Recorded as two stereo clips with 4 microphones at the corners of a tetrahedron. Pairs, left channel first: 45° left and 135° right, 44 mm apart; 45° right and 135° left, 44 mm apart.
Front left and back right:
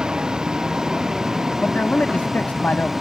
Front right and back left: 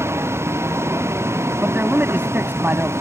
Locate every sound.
0.0 s a vehicle: 150° left; by 3.0 s 140° left
1.6 s a man speaking: 95° left